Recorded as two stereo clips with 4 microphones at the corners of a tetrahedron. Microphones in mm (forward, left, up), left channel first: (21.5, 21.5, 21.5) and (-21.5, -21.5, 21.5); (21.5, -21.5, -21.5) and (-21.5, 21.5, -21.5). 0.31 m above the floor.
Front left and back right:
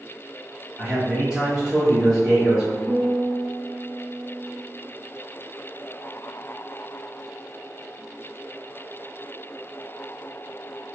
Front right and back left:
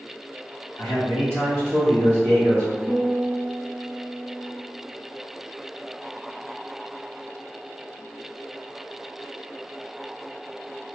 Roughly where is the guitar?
Ahead.